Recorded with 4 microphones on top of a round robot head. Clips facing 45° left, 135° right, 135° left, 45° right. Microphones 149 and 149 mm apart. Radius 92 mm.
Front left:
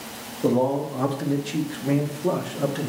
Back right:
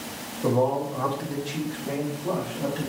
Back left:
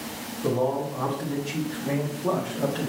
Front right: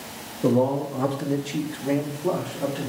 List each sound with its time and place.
0.4 s a man speaking: 20° right, 1.2 m; by 2.9 s 45° left, 1.6 m